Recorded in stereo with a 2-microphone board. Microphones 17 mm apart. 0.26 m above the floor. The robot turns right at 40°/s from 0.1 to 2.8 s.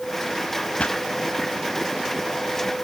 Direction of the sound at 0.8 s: 75° left (ahead or behind).